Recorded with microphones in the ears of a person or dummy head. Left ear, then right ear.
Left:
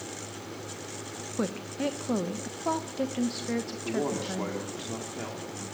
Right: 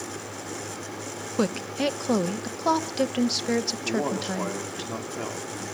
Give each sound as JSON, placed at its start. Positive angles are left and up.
{"t": 1.4, "sound": "a woman speaking", "side_deg": -75, "distance_m": 0.9}
{"t": 3.9, "sound": "a man speaking", "side_deg": -20, "distance_m": 2.5}